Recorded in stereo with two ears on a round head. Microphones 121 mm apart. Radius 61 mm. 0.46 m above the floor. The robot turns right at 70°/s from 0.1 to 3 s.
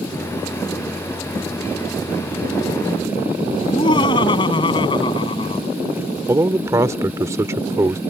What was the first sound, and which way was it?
Laughter, 35° left (ahead or behind).